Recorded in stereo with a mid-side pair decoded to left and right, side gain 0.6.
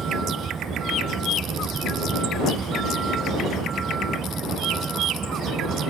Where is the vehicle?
30° right.